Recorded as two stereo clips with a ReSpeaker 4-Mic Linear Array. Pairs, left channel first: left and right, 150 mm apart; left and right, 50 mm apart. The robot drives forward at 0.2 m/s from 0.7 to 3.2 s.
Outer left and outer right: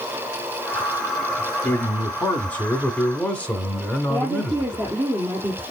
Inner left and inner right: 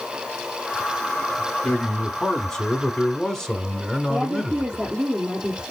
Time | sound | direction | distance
1.6 | a man speaking | 10° left (ahead or behind) | 1.0 m
4.1 | a woman speaking | 20° right (ahead or behind) | 4 m